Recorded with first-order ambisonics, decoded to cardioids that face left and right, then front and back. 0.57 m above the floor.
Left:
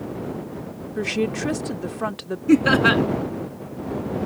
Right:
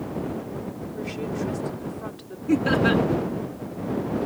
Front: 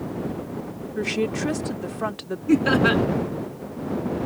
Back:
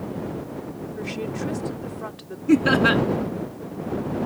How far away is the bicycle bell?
I don't hear a bicycle bell.